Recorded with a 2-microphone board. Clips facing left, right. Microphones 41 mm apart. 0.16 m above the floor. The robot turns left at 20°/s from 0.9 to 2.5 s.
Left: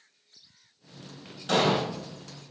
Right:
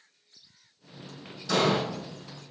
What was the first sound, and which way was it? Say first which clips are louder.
An explosion: left 1 dB; 50° left (ahead or behind).